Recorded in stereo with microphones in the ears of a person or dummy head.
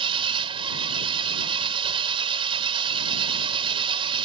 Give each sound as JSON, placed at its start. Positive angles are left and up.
{"t": 0.0, "sound": "an engine running", "side_deg": -30}